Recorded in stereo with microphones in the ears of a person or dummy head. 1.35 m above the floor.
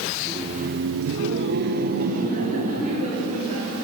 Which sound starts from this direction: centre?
Laughter, at 0.2 s.